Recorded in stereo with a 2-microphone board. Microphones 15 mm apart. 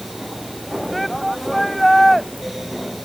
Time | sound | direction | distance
0.9 | a shout | 5° left (ahead or behind) | ?